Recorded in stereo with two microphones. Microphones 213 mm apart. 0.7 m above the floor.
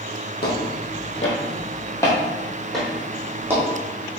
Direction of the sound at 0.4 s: 50° left (ahead or behind).